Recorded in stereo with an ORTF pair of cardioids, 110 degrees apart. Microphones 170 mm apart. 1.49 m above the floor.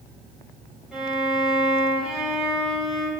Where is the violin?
Straight ahead, 5.5 m.